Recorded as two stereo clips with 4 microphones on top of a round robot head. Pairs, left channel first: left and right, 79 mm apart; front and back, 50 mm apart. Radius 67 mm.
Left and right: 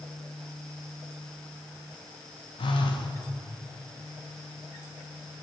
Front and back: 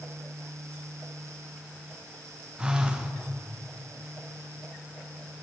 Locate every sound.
2.6 s a phone buzzing: 110° left, 1.6 m